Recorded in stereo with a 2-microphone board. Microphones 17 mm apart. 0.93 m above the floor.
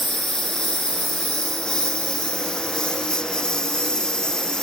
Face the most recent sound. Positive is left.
turn(degrees=50)  # may be behind; listen again after turning